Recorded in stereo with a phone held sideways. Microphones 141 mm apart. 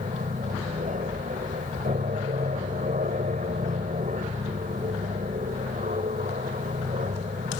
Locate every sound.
0.0 s an aircraft: 70° right (ahead or behind)